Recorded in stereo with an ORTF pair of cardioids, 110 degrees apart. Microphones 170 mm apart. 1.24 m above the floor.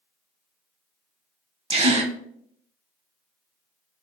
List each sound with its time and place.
1.7 s a gasp: 35° right, 0.7 m